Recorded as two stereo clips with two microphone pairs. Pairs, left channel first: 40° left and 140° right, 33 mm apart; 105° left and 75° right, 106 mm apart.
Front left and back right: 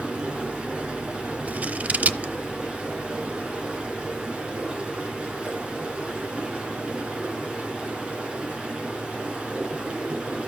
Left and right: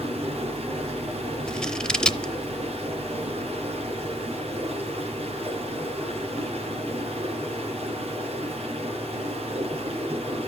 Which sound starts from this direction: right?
Running water, at 0.0 s.